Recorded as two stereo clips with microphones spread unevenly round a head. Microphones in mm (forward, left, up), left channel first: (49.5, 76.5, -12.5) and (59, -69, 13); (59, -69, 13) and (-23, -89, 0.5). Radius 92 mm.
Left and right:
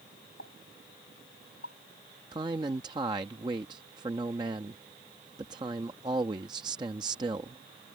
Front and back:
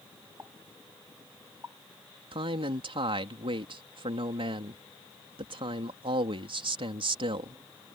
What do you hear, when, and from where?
0.4 s a pop: 120° left
2.3 s a man speaking: 155° right